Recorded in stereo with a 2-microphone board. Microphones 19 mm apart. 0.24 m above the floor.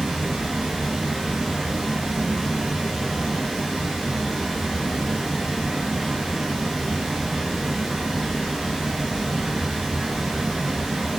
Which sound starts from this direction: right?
Running water, at 0.0 s.